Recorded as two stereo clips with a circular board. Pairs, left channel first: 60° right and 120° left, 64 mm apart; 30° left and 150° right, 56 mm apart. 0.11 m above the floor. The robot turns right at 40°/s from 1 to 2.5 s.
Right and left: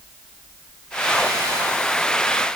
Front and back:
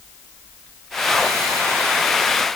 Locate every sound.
Only background noise.